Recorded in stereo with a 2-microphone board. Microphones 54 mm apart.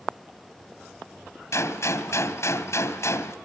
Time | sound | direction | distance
1.5 | a gunshot | 60° left (ahead or behind) | 2.5 m